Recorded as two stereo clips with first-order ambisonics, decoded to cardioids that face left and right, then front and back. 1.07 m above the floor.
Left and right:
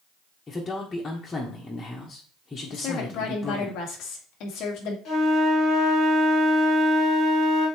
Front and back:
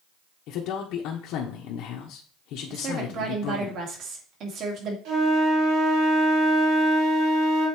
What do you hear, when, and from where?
0.5 s a man speaking: 20° left, 1.1 m
2.7 s a woman speaking: 130° left, 1.8 m
5.0 s a flute: 150° left, 3 m